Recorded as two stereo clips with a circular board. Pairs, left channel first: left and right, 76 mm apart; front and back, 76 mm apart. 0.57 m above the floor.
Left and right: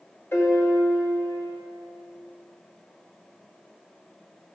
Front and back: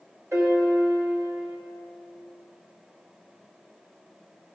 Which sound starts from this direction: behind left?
A piano, at 0.3 s.